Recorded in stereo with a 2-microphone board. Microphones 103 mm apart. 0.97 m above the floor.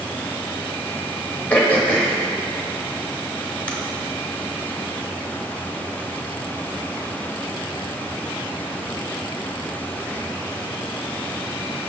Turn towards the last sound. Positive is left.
turn(degrees=15)  # may be behind; listen again after turning